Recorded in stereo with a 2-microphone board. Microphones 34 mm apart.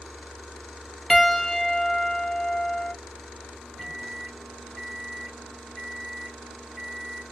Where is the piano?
10° left (ahead or behind), 0.8 m.